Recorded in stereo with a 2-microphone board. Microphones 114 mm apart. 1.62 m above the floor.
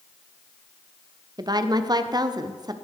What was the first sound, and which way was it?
A woman speaking, 35° right (ahead or behind).